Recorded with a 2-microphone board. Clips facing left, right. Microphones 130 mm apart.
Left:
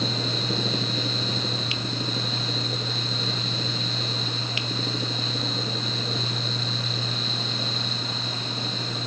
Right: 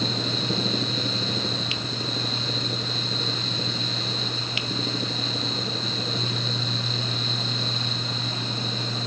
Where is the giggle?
No giggle in this recording.